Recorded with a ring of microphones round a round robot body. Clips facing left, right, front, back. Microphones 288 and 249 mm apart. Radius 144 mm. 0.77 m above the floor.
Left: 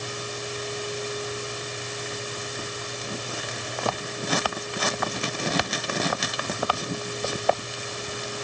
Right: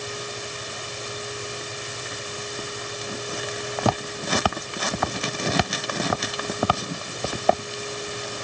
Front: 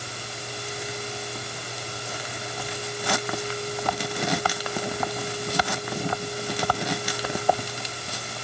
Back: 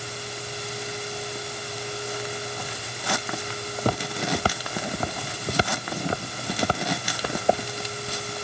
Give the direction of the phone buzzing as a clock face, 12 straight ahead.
No phone buzzing in this recording.